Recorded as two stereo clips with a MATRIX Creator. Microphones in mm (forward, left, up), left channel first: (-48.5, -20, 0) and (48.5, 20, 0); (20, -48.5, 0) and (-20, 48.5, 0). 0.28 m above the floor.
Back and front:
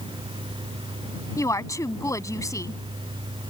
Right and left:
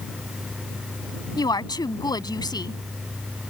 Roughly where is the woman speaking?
Right.